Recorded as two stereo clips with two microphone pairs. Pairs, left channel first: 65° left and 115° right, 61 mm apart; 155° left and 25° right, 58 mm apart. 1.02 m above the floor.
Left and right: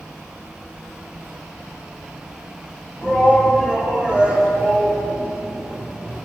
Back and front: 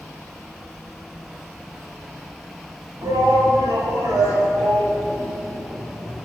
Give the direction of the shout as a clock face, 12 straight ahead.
1 o'clock.